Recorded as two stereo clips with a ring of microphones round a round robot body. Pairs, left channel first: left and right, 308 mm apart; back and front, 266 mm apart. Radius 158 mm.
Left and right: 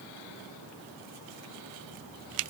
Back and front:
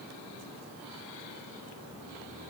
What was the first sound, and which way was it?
Only background noise.